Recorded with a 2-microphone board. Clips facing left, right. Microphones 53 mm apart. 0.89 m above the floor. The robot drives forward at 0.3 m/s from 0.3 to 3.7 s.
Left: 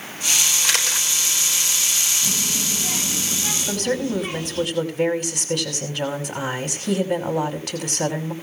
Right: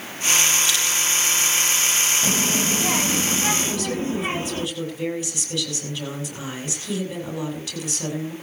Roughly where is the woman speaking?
Left.